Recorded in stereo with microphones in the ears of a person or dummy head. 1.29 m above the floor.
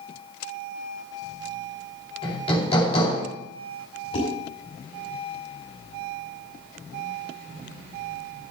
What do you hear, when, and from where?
2.2 s hammering: 30° left (ahead or behind), 3 m
4.1 s dishes clattering: 30° left (ahead or behind), 5.5 m